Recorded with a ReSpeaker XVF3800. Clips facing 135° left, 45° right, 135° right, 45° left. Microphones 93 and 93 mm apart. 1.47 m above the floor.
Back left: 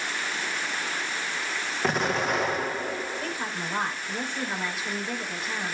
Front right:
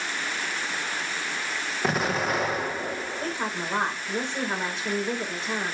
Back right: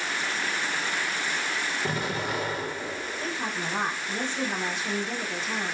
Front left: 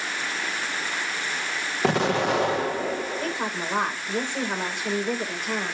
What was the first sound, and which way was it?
An explosion, 45° left.